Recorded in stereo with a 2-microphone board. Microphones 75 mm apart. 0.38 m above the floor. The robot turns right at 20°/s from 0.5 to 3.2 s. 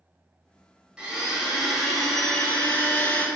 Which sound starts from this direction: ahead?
A blender, at 1.0 s.